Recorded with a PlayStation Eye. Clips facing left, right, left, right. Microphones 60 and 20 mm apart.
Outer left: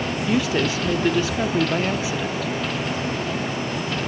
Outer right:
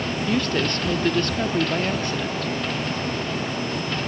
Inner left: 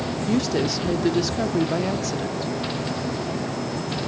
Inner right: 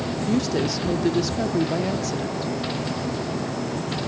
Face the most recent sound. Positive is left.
turn(degrees=5)  # may be behind; listen again after turning